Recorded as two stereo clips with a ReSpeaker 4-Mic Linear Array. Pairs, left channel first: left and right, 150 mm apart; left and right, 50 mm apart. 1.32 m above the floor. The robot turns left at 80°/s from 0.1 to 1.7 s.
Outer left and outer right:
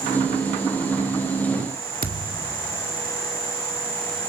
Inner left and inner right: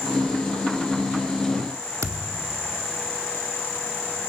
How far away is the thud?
About 1.7 m.